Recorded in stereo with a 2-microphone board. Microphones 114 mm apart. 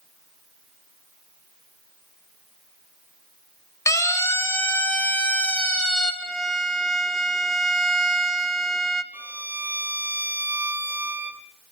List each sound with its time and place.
3.9 s a siren: 30° left (ahead or behind), 3.5 m; by 6.1 s 5° left (ahead or behind), 3.5 m
6.2 s a violin: 5° left (ahead or behind), 1.6 m
9.1 s a violin: 15° right (ahead or behind), 1.2 m